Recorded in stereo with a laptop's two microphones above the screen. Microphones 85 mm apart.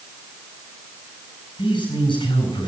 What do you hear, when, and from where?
1.6 s a man speaking: 65° left (ahead or behind), 8.5 m